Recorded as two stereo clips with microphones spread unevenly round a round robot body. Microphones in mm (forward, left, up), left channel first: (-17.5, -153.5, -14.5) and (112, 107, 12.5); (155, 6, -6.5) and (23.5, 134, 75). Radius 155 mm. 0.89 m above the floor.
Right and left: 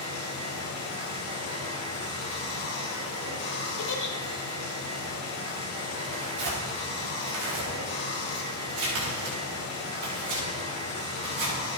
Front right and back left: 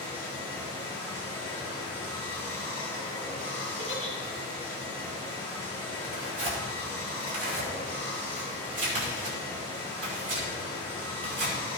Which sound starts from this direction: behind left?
Tearing paper, at 6.0 s.